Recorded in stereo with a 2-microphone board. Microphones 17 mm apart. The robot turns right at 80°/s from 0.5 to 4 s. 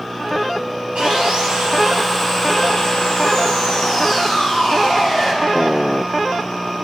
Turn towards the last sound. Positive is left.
turn(degrees=145)